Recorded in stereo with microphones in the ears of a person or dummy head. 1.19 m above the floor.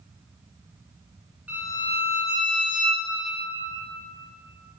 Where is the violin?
5° right (ahead or behind), 2.5 m.